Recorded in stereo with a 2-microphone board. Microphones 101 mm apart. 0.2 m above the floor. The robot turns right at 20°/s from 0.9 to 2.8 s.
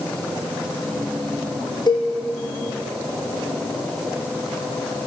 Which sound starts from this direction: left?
A cowbell, at 1.9 s.